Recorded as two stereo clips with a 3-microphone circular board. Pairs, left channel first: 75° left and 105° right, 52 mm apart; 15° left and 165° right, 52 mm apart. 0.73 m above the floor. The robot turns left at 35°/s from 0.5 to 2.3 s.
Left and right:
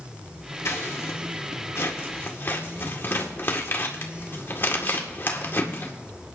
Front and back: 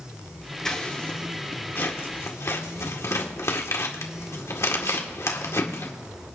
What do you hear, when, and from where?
0.7 s scissors: 95° left, 1.7 m; by 5.9 s 35° left, 1.7 m